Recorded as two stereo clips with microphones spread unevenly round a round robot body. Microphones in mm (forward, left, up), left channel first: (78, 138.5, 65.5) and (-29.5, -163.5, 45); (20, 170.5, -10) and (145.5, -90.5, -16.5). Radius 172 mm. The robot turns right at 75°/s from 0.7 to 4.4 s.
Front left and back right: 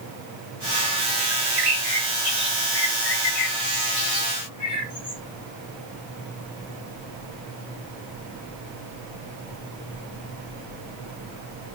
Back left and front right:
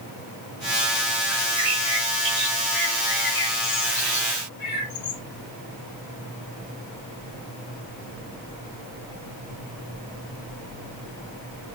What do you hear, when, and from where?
1.3 s a bird: 120° right, 7.5 m; by 5.2 s 110° left, 7.5 m